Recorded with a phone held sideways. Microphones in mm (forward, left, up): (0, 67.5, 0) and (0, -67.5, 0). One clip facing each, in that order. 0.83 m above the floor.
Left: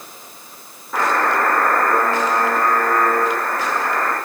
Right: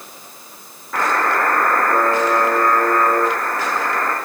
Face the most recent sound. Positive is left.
turn(degrees=5)  # may be behind; listen again after turning